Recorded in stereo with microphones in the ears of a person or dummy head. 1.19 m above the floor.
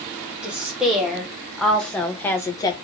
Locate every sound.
0.4 s a woman speaking: 5° right (ahead or behind), 2 m; by 2.8 s 25° left (ahead or behind), 0.7 m